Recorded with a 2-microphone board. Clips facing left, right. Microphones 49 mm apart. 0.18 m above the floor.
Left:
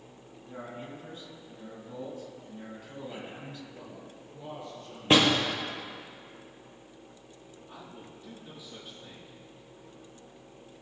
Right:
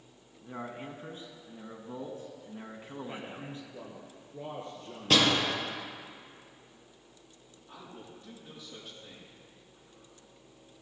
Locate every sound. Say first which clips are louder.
0.4 s a man speaking: right 1 dB; 35° right (ahead or behind), 2.0 m
3.1 s a man speaking: even; 35° right (ahead or behind), 2.5 m
5.1 s a door slam: left 3 dB; 25° left (ahead or behind), 2.5 m
7.7 s a man speaking: right 1 dB; centre (ahead or behind), 5.5 m